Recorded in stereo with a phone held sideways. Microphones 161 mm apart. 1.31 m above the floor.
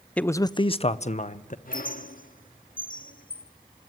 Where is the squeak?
60° left (ahead or behind), 1.2 m.